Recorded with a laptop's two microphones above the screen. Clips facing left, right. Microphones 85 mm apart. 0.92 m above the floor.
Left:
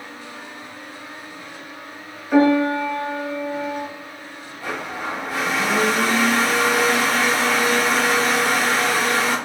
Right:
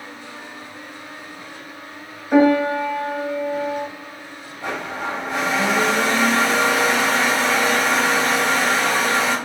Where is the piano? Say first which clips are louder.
Right 1 dB; 25° right (ahead or behind), 1.5 m.